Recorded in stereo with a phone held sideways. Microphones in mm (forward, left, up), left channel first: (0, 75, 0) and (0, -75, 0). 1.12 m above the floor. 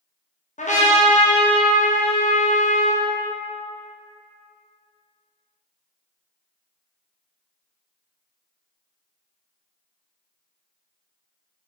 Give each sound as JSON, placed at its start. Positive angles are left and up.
{"t": 0.6, "sound": "a trumpet", "side_deg": 55, "distance_m": 0.7}